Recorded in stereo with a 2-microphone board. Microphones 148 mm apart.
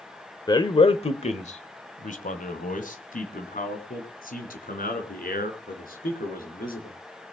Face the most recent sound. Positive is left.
turn(degrees=80)